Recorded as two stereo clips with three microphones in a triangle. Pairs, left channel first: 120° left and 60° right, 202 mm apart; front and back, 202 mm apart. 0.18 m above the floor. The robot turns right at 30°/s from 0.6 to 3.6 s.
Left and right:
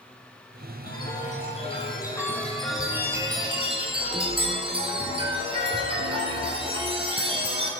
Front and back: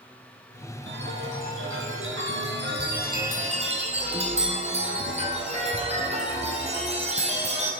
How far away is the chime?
About 1.7 m.